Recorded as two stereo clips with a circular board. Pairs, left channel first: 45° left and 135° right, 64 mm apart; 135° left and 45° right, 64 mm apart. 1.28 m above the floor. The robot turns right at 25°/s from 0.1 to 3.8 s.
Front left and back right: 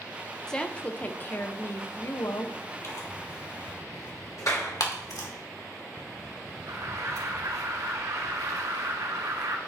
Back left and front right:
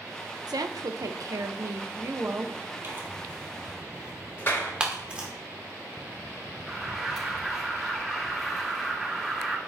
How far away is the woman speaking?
About 0.9 m.